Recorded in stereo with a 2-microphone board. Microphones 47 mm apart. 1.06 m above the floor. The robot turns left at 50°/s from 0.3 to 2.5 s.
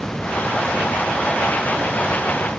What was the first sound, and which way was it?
Only background noise.